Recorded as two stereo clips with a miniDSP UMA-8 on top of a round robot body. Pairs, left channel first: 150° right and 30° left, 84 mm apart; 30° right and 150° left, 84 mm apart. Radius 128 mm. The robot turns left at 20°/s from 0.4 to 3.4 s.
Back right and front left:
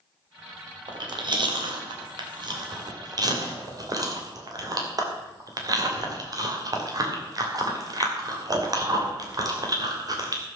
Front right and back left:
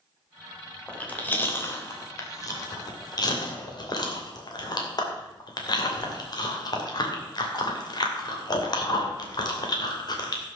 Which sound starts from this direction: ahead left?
Chewing, at 0.9 s.